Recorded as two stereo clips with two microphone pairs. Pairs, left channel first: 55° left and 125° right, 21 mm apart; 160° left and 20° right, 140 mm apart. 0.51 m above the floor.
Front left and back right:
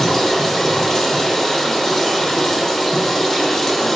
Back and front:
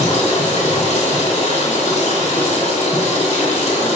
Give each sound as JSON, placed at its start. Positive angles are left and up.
{"t": 0.0, "sound": "running water", "azimuth_deg": 130, "distance_m": 1.0}